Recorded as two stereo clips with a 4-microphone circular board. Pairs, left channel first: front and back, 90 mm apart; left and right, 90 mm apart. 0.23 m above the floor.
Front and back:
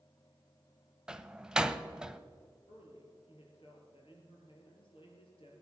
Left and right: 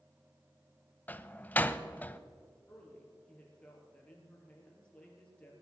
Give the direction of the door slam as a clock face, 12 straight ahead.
8 o'clock.